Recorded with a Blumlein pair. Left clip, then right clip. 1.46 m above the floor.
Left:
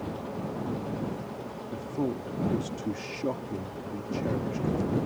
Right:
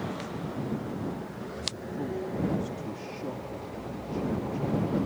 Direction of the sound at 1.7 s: 65° left.